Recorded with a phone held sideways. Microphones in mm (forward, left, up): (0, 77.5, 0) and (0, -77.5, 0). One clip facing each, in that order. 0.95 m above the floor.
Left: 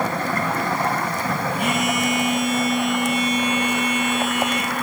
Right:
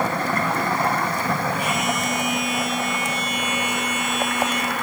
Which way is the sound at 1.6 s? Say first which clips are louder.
Left 2 dB; 65° left (ahead or behind).